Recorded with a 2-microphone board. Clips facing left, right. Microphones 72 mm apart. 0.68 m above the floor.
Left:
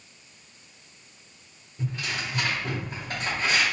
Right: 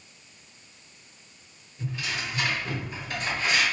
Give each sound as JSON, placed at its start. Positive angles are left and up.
{"t": 1.8, "sound": "tearing paper", "side_deg": 45, "distance_m": 1.8}